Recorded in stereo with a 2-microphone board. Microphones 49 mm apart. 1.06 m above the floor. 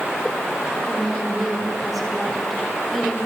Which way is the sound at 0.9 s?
Centre (ahead or behind).